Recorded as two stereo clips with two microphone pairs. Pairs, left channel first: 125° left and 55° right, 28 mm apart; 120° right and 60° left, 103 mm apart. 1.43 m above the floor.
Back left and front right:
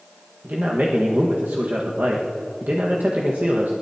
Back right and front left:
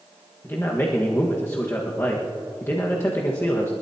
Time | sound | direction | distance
0.4 | a man speaking | 60° right | 1.5 m